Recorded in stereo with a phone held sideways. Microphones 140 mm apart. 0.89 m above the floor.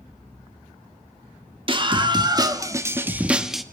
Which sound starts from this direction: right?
A scream, at 1.7 s.